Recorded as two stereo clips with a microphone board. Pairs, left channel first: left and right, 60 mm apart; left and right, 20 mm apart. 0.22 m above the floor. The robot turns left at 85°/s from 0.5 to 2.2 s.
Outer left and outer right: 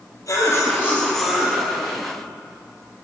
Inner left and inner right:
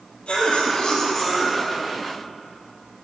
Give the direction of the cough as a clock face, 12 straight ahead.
10 o'clock.